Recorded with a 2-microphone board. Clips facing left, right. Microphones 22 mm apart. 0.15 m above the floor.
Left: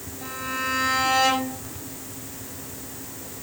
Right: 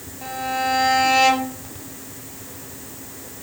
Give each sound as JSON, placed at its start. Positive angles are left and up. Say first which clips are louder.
{"t": 0.2, "sound": "a violin", "louder": "right 5 dB", "side_deg": -20, "distance_m": 1.7}